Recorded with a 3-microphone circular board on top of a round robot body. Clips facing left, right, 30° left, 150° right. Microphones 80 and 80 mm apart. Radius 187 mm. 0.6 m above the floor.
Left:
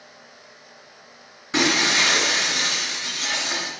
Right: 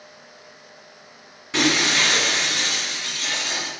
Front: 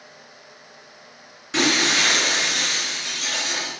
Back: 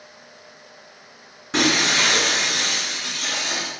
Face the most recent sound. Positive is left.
turn(degrees=160)